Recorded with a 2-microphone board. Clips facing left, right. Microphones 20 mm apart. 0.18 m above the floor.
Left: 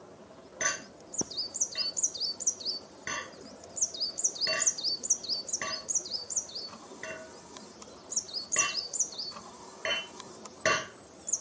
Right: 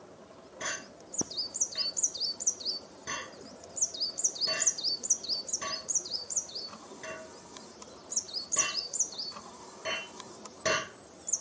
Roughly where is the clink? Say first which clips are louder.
Left 5 dB; left.